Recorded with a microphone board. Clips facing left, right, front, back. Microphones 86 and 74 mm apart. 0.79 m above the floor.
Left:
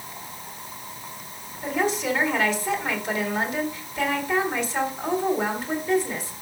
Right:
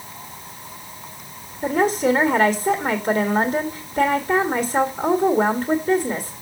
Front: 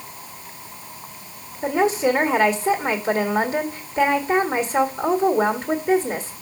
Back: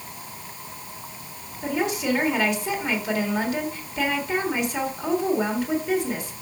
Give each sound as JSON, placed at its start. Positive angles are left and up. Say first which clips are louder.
{"t": 1.6, "sound": "a woman speaking", "louder": "right 6 dB, front 6 dB", "azimuth_deg": -55, "distance_m": 1.6}